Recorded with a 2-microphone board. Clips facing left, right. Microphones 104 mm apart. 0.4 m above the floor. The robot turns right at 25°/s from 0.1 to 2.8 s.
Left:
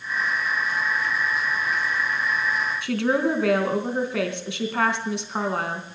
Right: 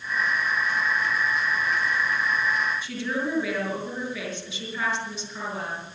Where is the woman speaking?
75° left (ahead or behind), 3.5 m.